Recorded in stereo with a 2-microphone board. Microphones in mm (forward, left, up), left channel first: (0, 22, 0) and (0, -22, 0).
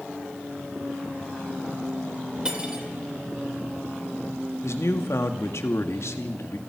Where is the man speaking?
80° left, 2 m.